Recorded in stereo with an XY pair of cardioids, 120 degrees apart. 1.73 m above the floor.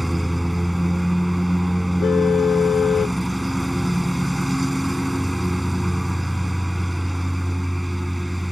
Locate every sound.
0.0 s a lawn mower: 5° right
2.0 s a car horn: 45° left